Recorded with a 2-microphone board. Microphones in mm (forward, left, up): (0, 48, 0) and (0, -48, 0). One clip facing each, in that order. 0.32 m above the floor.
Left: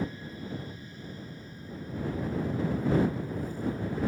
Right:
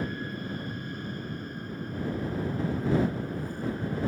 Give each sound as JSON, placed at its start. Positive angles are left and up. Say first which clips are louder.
{"t": 0.0, "sound": "an aircraft", "louder": "right 2 dB", "side_deg": -65}